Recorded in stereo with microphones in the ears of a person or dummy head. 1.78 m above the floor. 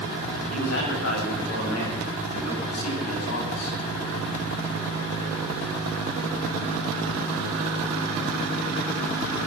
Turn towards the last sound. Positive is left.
turn(degrees=80)